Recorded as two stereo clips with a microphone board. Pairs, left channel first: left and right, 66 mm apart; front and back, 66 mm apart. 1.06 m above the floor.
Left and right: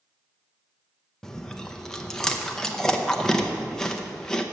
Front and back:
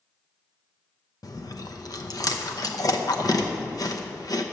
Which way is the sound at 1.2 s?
10° left.